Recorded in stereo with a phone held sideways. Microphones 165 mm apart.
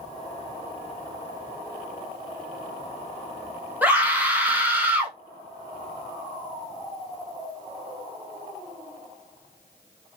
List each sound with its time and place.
3.8 s a scream: 10° right (ahead or behind), 1.3 m